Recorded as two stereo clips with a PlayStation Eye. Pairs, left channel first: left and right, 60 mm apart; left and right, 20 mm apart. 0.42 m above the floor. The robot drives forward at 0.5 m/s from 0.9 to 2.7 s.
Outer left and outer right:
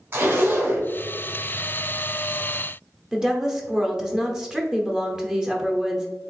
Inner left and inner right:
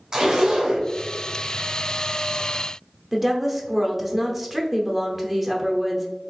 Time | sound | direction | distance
0.1 | a zipper | 35° right (ahead or behind) | 1.7 m
3.1 | a woman speaking | 10° right (ahead or behind) | 0.9 m